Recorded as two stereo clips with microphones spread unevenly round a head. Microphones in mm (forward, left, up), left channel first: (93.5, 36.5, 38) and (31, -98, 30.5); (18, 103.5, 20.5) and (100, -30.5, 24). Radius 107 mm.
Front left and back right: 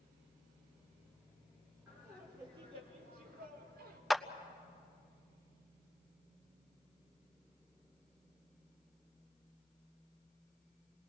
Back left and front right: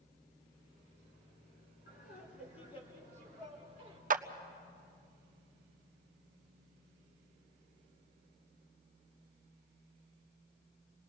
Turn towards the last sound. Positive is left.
turn(degrees=-25)